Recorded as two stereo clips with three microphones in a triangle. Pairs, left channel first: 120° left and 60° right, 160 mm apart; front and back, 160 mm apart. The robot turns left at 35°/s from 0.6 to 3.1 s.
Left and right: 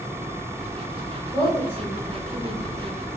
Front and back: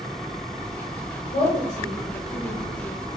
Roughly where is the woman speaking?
Ahead left.